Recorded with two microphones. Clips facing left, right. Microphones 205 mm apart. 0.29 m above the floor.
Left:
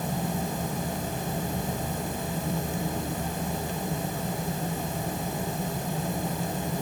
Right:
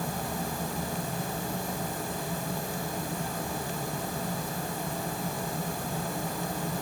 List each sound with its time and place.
Only background noise.